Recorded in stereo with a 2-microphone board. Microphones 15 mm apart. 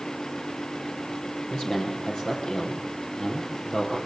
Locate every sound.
1.5 s a man speaking: 60° left (ahead or behind), 5 m; by 4.0 s 50° left (ahead or behind), 7 m